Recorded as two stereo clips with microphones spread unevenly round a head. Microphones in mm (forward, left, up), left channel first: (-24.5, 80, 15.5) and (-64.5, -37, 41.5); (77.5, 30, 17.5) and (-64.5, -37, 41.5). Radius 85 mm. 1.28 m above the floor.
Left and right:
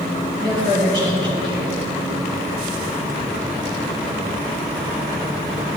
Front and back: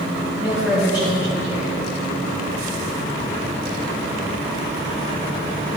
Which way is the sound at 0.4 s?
70° right.